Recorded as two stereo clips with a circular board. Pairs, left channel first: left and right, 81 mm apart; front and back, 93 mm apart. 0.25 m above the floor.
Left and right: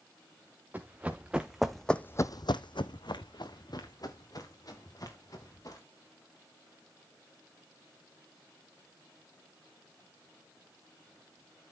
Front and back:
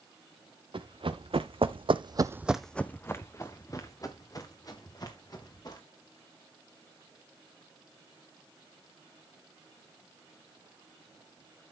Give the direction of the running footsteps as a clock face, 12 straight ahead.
5 o'clock.